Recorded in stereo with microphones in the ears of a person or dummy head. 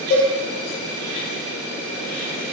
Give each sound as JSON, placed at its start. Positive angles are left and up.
{"t": 0.1, "sound": "a cowbell", "side_deg": 60, "distance_m": 4.0}